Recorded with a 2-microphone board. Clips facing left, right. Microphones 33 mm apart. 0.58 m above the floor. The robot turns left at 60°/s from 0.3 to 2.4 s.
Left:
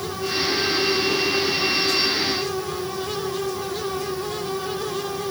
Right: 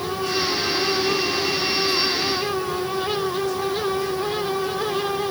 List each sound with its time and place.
Only background noise.